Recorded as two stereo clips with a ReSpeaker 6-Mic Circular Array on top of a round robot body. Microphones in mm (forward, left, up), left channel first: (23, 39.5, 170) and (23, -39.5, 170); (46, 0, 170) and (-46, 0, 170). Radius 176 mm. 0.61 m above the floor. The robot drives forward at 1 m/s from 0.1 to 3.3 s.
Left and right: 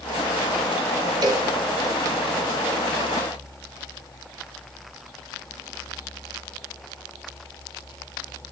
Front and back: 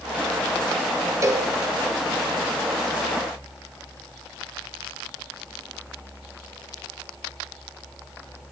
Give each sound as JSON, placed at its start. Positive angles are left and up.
{"t": 1.2, "sound": "a cowbell", "azimuth_deg": -125, "distance_m": 1.7}